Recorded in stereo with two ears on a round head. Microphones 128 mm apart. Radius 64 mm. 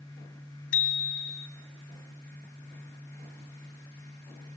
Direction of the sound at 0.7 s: 65° left (ahead or behind).